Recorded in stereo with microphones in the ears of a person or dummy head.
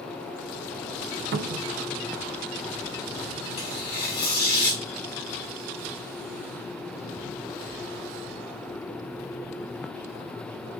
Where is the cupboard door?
50° right (ahead or behind), 0.6 m.